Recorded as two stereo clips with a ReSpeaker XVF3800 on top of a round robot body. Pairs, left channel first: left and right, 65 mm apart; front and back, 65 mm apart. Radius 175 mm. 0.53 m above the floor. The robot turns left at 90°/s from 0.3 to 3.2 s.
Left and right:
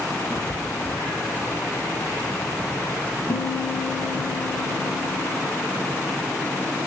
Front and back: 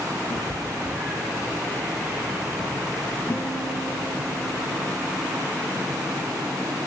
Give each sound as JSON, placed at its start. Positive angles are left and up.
{"t": 0.3, "sound": "a cat meowing", "azimuth_deg": -20, "distance_m": 7.0}
{"t": 3.3, "sound": "a guitar", "azimuth_deg": 80, "distance_m": 10.0}